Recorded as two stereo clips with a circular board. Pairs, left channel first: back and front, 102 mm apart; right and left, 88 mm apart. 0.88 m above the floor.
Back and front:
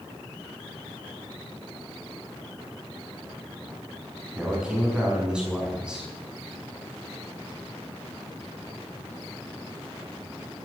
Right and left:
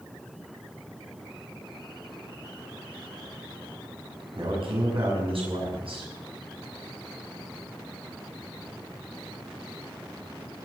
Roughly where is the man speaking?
Left.